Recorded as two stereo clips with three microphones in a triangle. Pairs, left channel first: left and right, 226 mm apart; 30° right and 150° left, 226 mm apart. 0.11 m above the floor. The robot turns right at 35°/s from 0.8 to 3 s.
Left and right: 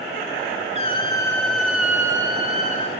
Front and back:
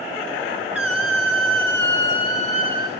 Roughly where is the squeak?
Behind left.